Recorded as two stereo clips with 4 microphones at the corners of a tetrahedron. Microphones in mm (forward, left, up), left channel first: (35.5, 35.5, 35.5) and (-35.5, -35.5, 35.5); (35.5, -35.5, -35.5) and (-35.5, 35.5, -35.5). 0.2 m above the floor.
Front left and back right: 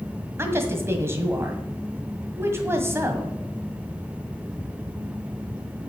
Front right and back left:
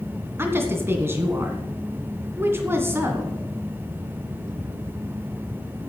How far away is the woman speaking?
About 1.6 m.